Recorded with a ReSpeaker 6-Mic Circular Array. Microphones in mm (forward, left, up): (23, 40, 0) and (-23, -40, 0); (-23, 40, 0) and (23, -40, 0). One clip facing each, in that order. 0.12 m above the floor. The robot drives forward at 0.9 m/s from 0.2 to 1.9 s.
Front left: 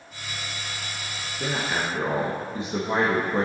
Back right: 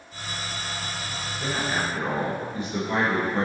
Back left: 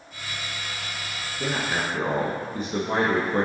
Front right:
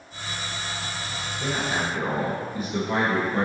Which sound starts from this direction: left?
A man speaking, at 1.4 s.